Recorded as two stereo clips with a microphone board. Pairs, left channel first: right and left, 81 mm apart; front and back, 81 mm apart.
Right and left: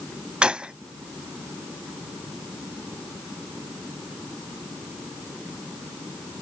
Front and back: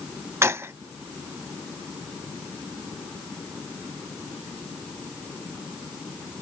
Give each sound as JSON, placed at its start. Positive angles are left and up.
{"t": 0.4, "sound": "a gunshot", "azimuth_deg": 160}